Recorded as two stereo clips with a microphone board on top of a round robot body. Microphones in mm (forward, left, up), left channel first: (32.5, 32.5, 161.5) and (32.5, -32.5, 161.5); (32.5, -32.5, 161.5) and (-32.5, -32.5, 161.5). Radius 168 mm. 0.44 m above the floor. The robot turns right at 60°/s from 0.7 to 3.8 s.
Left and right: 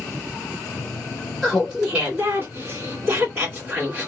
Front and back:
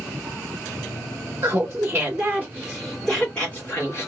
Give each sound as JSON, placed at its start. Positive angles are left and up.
{"t": 1.4, "sound": "laughter", "azimuth_deg": 175, "distance_m": 1.7}